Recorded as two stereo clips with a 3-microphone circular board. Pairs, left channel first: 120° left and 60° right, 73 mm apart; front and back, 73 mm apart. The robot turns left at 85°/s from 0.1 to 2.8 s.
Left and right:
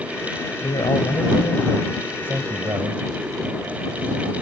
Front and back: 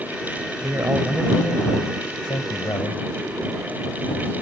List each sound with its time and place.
0.6 s a man speaking: 145° left; by 3.0 s 40° right